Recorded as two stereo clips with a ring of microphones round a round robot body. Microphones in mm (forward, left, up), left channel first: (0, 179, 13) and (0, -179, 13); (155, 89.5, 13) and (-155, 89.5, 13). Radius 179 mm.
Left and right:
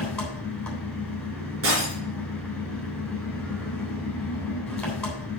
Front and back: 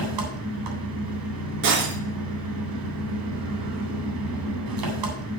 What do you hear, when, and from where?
0.0 s an engine running: straight behind, 3 m
1.6 s breaking glass: 145° right, 3 m